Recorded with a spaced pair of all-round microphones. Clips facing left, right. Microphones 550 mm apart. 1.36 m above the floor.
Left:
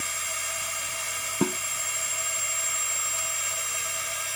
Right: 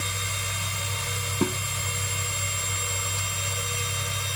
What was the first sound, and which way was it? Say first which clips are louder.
A machine running: right 5 dB; 80° right.